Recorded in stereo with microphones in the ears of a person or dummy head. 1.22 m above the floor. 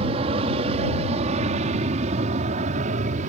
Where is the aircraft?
35° right (ahead or behind); by 3.3 s 45° right (ahead or behind).